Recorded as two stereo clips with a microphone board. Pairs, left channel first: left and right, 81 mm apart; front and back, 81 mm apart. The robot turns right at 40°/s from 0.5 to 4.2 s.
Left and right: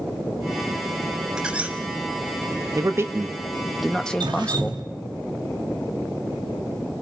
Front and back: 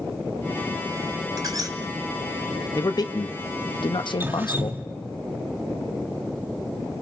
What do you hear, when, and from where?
1.4 s a squeak: 170° right, 1.3 m; by 1.8 s 155° right, 1.3 m
2.8 s a man speaking: 45° right, 1.0 m; by 4.8 s 15° left, 1.0 m
4.2 s dripping: 115° right, 1.3 m